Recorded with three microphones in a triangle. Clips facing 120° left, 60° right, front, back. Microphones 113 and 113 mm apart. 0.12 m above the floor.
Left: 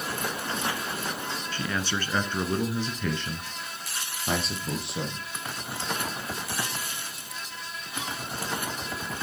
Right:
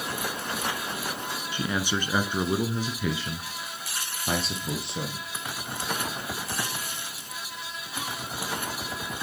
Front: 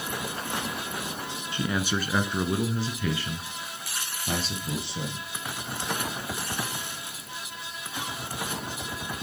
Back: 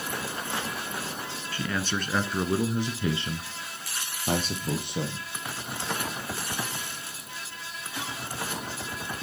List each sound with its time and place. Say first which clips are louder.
1.5 s a man speaking: right 3 dB, front 2 dB; 20° right, 1.1 m; by 5.3 s 150° right, 2 m